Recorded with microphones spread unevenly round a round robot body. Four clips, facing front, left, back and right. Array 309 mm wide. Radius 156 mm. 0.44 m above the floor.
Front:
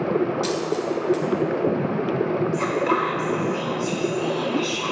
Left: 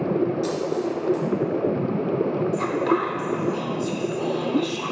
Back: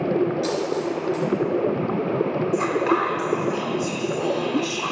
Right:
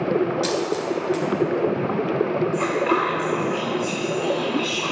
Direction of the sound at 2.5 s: 105° left.